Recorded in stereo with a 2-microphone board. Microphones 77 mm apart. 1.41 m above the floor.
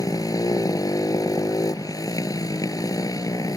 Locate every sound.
0.0 s a motorcycle: 50° left (ahead or behind)